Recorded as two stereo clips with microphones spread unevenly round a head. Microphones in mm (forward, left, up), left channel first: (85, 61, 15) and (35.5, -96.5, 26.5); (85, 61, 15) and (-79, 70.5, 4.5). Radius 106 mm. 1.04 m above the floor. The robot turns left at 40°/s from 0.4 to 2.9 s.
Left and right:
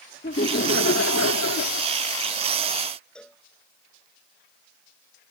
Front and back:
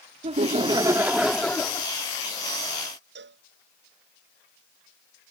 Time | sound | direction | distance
0.2 | laughter | 125° left | ?
3.1 | a cowbell | 160° left | ?